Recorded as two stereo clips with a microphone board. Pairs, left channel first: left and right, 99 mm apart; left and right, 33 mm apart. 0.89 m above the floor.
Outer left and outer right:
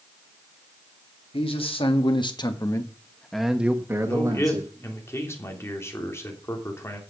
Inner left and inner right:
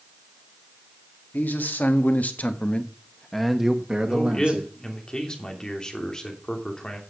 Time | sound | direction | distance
1.3 | a man speaking | 70° left (ahead or behind) | 2.5 m
4.1 | a man speaking | 25° left (ahead or behind) | 3 m